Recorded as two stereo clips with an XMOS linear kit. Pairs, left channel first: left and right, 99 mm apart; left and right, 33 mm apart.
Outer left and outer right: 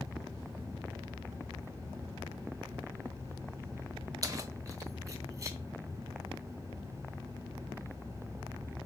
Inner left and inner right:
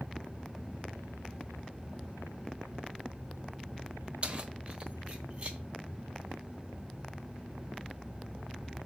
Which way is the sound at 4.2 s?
35° right (ahead or behind).